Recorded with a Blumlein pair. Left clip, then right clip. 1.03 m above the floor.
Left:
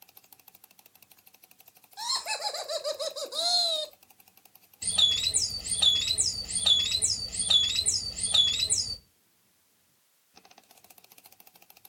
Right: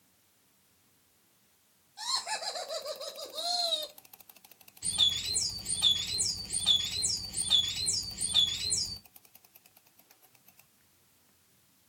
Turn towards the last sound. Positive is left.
turn(degrees=50)